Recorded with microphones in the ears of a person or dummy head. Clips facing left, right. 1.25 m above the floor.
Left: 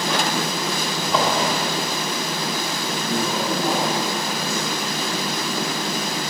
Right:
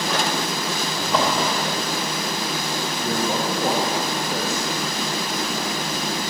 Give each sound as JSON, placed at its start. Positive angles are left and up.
{"t": 1.0, "sound": "a drawer", "side_deg": 0, "distance_m": 1.7}
{"t": 3.0, "sound": "a man speaking", "side_deg": -35, "distance_m": 1.6}